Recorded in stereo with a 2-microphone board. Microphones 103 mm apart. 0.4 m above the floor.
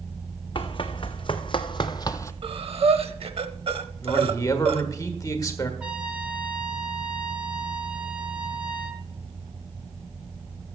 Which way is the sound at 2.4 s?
65° right (ahead or behind).